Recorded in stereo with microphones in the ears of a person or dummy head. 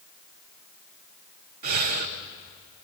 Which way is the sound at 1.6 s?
45° right (ahead or behind).